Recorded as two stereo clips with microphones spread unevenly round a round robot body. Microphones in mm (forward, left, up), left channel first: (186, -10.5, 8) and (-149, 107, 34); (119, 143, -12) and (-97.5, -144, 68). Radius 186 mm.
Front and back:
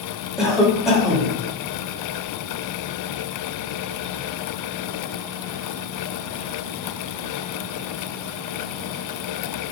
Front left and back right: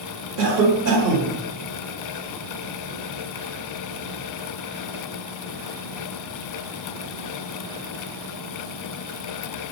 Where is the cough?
100° right, 1.3 m.